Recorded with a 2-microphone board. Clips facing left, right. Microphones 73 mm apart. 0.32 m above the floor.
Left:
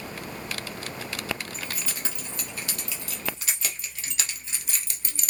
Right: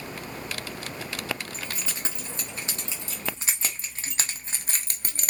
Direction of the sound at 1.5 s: 25° right (ahead or behind).